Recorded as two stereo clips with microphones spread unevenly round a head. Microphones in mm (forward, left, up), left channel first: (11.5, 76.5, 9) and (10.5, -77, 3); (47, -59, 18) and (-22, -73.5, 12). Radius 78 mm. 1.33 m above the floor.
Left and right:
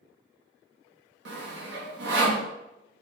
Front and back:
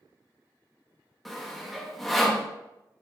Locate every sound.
1.2 s sawing: 75° right, 0.8 m